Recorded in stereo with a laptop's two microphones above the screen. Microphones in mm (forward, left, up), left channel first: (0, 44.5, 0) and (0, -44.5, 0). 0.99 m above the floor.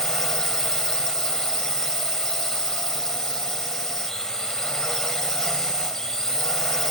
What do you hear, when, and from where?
0.0 s a drone: 5° left (ahead or behind)